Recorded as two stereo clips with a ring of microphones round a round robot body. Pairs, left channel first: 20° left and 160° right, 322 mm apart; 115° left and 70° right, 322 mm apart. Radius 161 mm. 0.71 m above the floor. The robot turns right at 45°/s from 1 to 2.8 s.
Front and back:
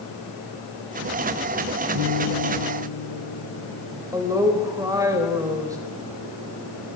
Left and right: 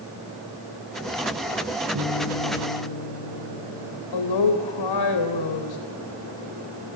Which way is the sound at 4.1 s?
125° left.